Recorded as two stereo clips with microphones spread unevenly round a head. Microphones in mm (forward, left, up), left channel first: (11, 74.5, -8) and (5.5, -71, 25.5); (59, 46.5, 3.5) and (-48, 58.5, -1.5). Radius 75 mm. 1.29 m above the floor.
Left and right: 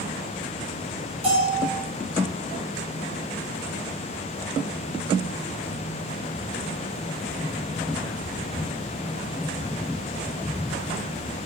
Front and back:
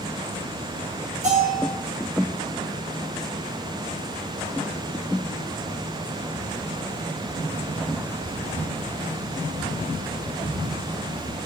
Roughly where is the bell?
Behind right.